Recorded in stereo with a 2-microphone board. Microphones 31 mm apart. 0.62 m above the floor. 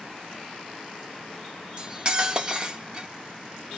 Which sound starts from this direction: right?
Cutlery clinking, at 1.8 s.